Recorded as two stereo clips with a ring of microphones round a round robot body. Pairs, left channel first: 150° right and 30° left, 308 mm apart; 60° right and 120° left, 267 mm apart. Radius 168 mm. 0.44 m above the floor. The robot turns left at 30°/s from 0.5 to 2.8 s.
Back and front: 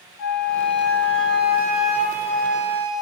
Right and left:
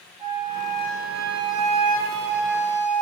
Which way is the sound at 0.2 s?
175° left.